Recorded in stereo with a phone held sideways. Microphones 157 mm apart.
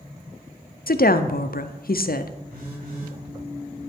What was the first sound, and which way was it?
A woman speaking, 70° left (ahead or behind).